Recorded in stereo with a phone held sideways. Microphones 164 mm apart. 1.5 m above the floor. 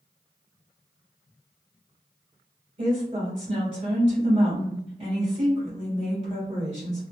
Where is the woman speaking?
50° right (ahead or behind), 1.6 m.